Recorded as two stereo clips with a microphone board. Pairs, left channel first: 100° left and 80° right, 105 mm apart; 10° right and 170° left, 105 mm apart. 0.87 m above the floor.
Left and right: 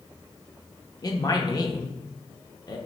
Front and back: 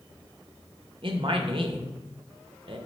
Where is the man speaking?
145° left, 0.6 m.